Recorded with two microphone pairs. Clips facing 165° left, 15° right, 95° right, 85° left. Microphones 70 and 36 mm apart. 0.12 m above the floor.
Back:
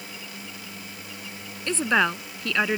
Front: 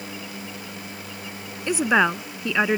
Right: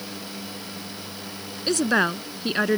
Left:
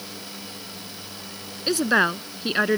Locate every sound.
1.7 s a woman speaking: 20° left